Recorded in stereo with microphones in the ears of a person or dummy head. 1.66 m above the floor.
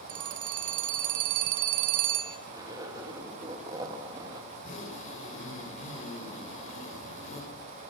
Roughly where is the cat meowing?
I don't hear a cat meowing.